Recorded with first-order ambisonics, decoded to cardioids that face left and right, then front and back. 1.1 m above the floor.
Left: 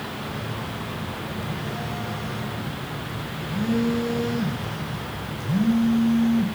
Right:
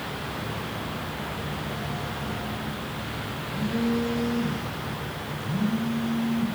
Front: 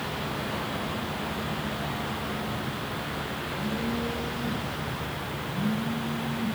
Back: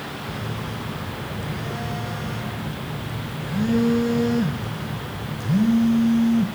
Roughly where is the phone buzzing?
Behind.